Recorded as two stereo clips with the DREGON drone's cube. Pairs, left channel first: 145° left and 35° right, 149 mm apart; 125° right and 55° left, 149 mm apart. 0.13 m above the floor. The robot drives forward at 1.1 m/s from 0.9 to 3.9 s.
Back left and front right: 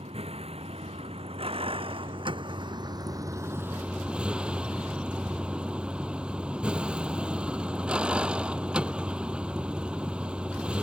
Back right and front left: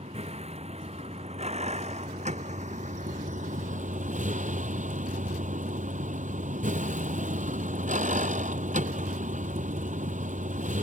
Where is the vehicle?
15° left; by 10.8 s 50° left.